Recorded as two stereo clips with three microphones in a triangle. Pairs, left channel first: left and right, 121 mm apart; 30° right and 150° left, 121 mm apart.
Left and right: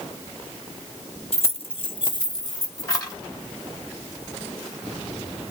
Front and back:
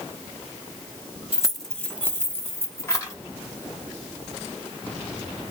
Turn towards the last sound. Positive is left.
turn(degrees=30)